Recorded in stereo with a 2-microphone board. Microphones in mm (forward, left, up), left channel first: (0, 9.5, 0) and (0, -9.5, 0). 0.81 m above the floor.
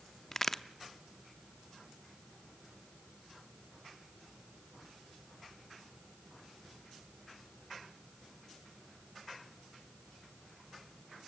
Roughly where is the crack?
Centre.